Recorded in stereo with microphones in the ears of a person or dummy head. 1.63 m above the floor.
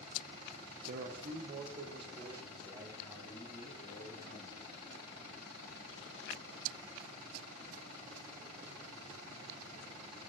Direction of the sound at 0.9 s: 55° right (ahead or behind).